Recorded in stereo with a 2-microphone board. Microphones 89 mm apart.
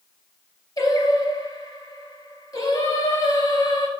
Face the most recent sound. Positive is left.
turn(degrees=40)  # may be behind; listen again after turning